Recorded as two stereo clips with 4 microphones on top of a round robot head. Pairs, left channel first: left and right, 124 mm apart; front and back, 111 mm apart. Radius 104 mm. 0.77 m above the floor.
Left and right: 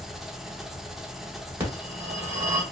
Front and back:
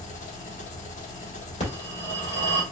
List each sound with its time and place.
0.0 s an engine running: 5° right, 0.8 m
1.6 s a phone ringing: 15° right, 2.5 m